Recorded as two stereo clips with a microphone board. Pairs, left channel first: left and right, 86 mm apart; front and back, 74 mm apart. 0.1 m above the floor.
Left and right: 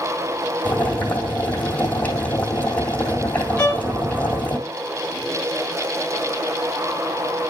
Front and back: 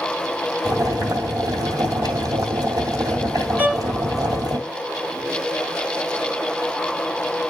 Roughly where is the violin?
Behind left.